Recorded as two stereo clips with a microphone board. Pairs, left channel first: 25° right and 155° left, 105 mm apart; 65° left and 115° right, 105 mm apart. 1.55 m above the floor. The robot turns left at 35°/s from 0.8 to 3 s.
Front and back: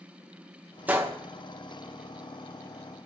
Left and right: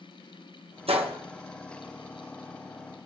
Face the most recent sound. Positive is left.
turn(degrees=155)